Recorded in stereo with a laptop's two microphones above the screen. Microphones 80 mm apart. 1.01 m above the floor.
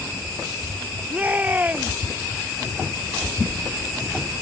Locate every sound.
1.1 s a shout: 20° right (ahead or behind)